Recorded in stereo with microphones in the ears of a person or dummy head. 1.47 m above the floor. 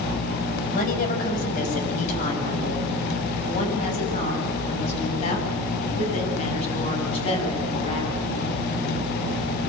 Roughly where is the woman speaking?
Left.